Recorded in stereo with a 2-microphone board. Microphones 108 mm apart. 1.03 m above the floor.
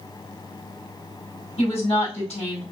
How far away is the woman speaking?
About 3.5 m.